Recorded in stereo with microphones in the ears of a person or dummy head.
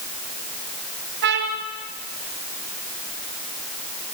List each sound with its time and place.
1.2 s a trumpet: 60° right (ahead or behind), 2.5 m